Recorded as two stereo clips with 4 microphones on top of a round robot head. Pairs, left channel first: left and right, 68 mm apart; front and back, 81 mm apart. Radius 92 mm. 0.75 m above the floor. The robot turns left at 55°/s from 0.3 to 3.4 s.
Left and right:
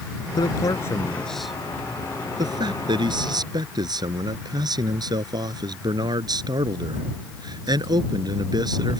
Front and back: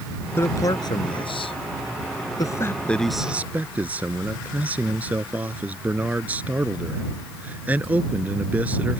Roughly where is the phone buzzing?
I don't hear a phone buzzing.